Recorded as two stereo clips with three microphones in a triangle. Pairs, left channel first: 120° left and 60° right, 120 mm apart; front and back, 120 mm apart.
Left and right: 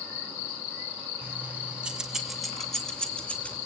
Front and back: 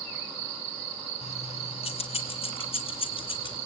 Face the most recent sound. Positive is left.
turn(degrees=45)